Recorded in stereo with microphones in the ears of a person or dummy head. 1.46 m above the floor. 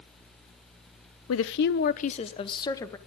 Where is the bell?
I don't hear a bell.